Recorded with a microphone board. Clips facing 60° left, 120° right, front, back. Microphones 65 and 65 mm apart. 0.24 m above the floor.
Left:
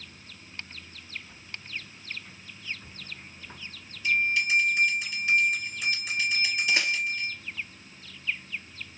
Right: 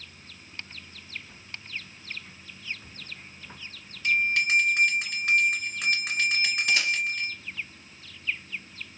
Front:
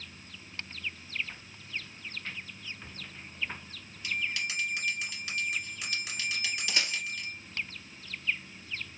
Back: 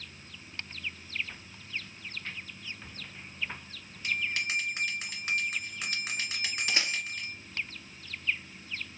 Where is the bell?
140° right, 1.9 m.